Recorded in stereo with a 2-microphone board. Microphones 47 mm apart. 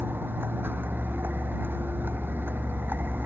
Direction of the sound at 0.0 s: 50° right (ahead or behind).